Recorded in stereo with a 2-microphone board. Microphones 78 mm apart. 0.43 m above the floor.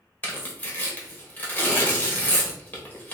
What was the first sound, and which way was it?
Tearing paper, 25° left (ahead or behind).